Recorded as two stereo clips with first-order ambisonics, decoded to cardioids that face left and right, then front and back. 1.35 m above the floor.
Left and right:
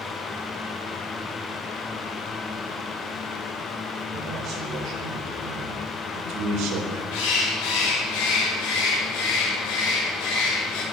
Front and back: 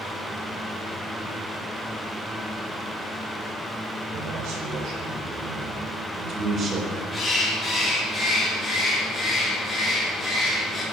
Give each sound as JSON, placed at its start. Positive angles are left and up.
{"t": 4.1, "sound": "a man speaking", "azimuth_deg": -145, "distance_m": 5.5}
{"t": 7.1, "sound": "a bird", "azimuth_deg": 90, "distance_m": 6.0}